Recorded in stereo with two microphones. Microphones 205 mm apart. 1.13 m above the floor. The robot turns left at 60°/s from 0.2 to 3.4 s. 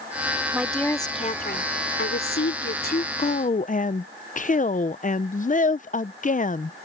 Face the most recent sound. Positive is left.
turn(degrees=40)  # may be behind; listen again after turning